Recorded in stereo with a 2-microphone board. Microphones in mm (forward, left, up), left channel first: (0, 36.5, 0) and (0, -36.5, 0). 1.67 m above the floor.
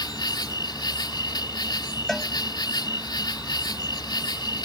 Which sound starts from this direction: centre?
A cowbell, at 2.1 s.